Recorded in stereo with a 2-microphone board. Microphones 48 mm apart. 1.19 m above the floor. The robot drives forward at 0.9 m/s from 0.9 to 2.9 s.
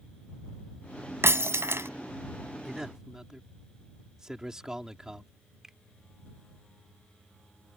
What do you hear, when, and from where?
1.2 s breaking glass: 65° right (ahead or behind)
2.6 s a man speaking: 10° right (ahead or behind)
5.6 s a finger snap: 10° right (ahead or behind)